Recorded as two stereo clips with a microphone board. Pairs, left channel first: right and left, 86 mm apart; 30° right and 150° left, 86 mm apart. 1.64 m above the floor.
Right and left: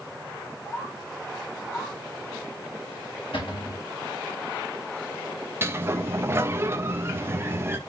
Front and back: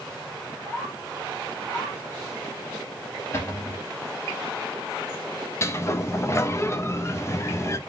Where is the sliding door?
30° left, 0.7 m.